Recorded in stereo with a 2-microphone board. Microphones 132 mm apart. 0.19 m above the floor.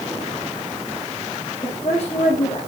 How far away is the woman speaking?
About 7.5 m.